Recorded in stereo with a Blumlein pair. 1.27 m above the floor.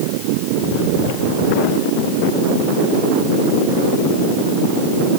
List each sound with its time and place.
Only background noise.